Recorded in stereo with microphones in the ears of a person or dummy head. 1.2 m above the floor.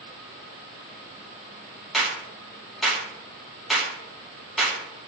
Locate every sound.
1.9 s a clap: centre (ahead or behind), 1.8 m